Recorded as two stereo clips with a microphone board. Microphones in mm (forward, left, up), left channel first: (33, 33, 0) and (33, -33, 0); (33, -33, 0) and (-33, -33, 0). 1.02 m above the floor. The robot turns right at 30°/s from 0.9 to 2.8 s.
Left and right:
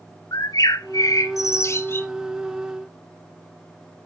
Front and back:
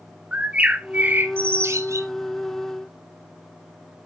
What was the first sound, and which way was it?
A bird, 110° left.